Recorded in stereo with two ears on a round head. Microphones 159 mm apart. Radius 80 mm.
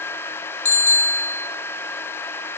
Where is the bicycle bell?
45° left (ahead or behind), 3 m.